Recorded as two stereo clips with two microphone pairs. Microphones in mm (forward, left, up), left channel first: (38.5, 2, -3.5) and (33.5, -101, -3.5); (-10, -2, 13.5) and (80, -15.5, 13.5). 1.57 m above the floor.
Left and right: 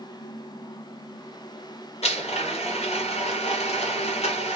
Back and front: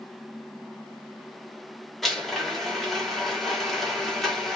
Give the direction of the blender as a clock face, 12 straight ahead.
9 o'clock.